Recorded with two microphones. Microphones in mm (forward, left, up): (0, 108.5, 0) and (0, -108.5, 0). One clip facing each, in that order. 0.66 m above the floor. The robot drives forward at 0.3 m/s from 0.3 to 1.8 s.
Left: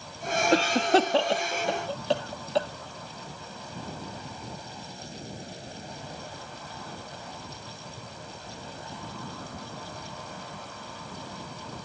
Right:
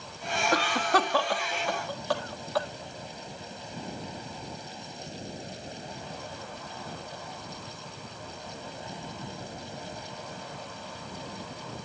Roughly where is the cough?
Left.